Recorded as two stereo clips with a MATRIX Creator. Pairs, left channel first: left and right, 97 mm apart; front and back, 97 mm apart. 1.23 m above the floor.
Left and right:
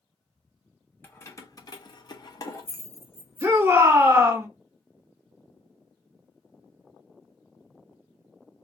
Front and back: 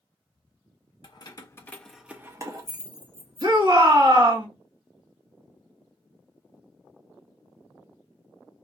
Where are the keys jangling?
25° left, 0.7 m; by 3.5 s 155° left, 1.0 m.